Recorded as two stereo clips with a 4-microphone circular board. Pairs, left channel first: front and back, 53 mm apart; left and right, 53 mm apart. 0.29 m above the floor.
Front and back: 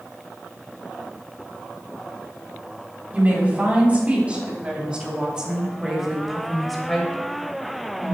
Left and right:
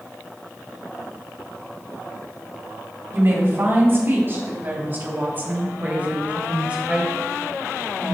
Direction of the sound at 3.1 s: 125° right.